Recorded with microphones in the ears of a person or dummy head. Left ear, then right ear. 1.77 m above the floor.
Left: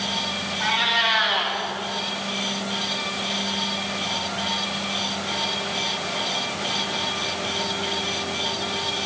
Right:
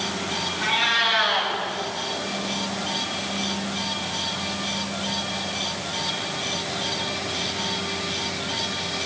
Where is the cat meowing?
25° left (ahead or behind), 2.5 m.